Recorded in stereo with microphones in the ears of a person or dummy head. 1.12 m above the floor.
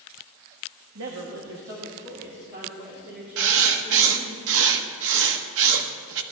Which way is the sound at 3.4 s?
75° right (ahead or behind).